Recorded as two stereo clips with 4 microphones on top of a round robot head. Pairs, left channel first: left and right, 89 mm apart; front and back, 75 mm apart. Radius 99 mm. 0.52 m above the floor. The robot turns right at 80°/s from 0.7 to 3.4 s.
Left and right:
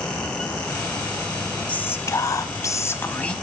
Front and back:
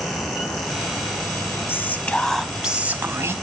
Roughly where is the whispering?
Ahead left.